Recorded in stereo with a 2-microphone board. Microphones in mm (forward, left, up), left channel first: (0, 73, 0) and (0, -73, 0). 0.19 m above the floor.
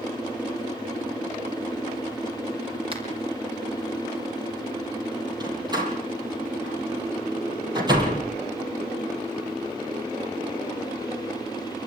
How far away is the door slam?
About 5.5 m.